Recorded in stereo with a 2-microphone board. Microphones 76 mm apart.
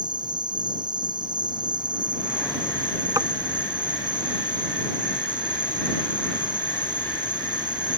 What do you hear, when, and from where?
0.0 s an insect: 75° right (ahead or behind)
3.2 s tapping: 45° right (ahead or behind)